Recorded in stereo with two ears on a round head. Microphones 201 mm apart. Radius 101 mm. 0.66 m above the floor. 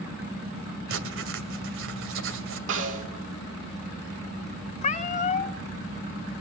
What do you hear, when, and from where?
0.9 s writing: 60° right (ahead or behind), 2.5 m
2.7 s a snare drum: 65° right (ahead or behind), 6.5 m
4.8 s a cat meowing: 35° left (ahead or behind), 0.9 m